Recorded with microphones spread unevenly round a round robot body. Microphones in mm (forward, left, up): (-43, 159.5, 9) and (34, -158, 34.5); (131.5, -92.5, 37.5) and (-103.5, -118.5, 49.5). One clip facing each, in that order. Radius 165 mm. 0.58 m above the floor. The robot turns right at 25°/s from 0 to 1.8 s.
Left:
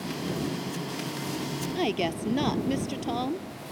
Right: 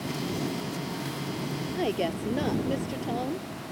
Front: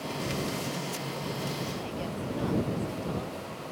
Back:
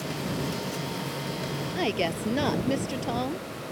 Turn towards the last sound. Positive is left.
turn(degrees=170)